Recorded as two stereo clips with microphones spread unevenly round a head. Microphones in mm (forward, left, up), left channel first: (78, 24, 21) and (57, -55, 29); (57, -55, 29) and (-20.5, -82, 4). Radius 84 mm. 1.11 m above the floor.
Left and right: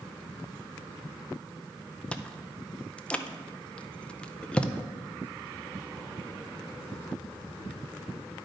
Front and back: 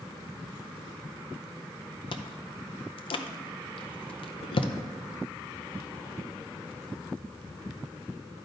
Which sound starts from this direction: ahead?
Chewing, at 2.1 s.